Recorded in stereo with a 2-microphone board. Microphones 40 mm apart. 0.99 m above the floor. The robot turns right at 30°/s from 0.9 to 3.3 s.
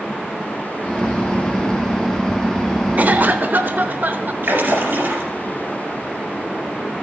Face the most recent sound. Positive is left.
turn(degrees=-65)  # may be behind; listen again after turning